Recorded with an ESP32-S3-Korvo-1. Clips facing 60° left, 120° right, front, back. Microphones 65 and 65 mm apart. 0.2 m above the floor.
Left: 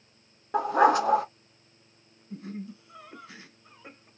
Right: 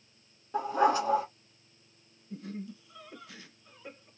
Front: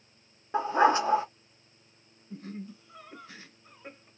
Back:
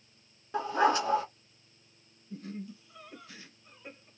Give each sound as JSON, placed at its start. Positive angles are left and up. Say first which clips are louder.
{"t": 0.5, "sound": "a dog barking", "louder": "left 5 dB, front 3 dB", "azimuth_deg": 60, "distance_m": 0.6}
{"t": 2.3, "sound": "laughter", "louder": "left 2 dB, even", "azimuth_deg": 25, "distance_m": 1.8}